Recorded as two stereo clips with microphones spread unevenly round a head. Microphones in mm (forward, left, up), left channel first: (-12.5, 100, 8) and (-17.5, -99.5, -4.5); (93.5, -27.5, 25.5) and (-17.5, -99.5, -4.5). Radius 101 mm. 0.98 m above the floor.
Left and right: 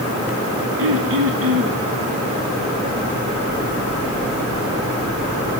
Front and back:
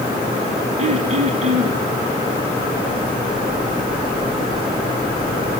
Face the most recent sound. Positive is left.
turn(degrees=-110)